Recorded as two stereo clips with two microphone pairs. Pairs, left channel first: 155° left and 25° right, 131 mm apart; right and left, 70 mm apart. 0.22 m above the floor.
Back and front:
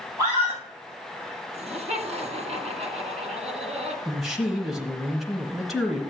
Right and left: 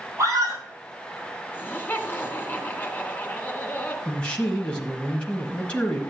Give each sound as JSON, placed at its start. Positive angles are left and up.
{"t": 0.2, "sound": "a scream", "azimuth_deg": 35, "distance_m": 6.5}
{"t": 1.5, "sound": "laughter", "azimuth_deg": -35, "distance_m": 2.5}
{"t": 4.0, "sound": "a man speaking", "azimuth_deg": -110, "distance_m": 1.1}